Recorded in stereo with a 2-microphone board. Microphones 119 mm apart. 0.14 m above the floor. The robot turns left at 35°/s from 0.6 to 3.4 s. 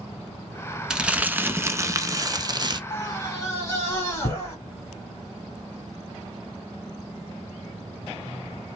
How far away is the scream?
About 1.3 m.